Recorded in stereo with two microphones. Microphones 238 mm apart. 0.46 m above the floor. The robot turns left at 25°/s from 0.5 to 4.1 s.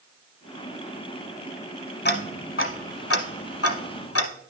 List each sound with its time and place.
2.0 s ticking: 45° left (ahead or behind), 0.7 m; by 4.3 s 70° left (ahead or behind), 0.7 m